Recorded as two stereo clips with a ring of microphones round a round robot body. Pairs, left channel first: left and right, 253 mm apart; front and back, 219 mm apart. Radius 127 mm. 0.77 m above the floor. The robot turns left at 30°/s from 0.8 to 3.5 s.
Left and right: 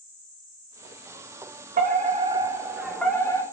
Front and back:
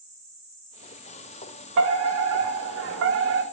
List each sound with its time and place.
1.8 s a fire alarm: 145° right, 3.5 m; by 3.4 s 165° left, 3.5 m